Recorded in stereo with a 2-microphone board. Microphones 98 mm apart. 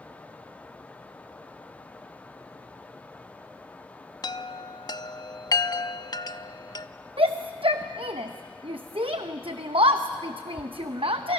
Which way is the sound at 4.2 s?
45° left (ahead or behind).